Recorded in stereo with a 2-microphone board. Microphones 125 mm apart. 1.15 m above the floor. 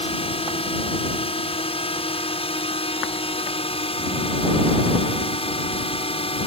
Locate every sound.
0.0 s a drone: 50° left (ahead or behind)